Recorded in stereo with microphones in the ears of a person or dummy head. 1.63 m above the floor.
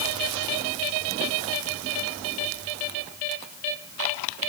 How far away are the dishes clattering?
No dishes clattering in this recording.